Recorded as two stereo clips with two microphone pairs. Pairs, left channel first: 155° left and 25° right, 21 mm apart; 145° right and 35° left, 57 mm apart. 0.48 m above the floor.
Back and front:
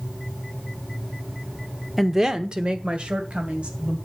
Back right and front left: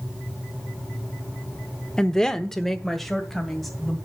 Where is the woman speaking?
105° right, 0.8 m; by 4.0 s 60° right, 3 m.